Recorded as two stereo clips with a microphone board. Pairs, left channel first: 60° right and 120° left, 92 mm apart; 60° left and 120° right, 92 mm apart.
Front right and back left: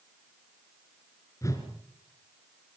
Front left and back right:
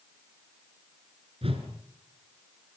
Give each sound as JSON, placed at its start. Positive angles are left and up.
{"t": 1.4, "sound": "a whoosh", "azimuth_deg": -115, "distance_m": 3.5}